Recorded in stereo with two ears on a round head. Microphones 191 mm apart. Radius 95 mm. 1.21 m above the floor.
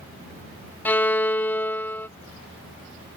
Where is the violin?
10° left (ahead or behind).